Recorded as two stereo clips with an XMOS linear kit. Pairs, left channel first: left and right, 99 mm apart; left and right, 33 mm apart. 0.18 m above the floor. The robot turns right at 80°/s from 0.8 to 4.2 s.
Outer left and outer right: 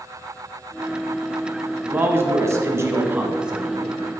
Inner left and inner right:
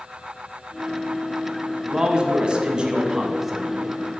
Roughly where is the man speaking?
Centre.